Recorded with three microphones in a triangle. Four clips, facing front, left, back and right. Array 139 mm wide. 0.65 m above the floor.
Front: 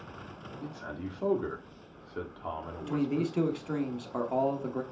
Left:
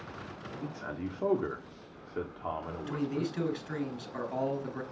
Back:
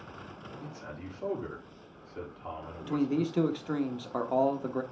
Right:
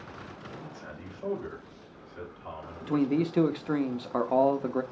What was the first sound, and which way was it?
A man speaking, 75° left.